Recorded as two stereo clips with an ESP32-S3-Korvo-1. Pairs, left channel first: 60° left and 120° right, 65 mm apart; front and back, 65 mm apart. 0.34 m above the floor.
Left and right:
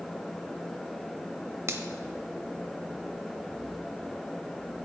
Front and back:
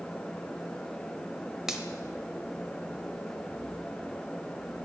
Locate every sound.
1.7 s a finger snap: 100° right, 1.0 m